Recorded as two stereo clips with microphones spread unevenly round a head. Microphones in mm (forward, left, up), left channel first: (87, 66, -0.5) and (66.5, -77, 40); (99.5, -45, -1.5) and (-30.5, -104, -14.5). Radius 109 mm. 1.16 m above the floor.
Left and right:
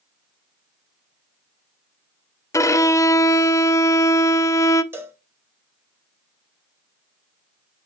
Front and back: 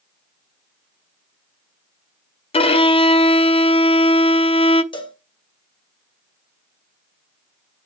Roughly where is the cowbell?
Ahead right.